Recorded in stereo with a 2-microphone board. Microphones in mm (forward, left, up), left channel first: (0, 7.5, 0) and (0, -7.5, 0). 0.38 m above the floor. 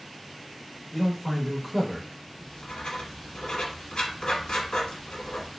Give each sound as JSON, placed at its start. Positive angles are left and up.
{"t": 0.9, "sound": "a man speaking", "side_deg": 5, "distance_m": 0.9}
{"t": 2.4, "sound": "writing", "side_deg": 85, "distance_m": 0.8}